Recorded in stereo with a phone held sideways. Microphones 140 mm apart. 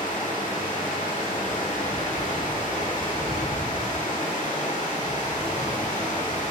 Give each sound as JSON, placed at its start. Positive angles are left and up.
{"t": 0.0, "sound": "running water", "side_deg": 75, "distance_m": 4.5}